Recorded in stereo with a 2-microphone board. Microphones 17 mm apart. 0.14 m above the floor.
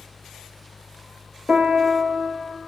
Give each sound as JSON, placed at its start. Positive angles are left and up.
{"t": 1.5, "sound": "a piano", "side_deg": -65, "distance_m": 1.1}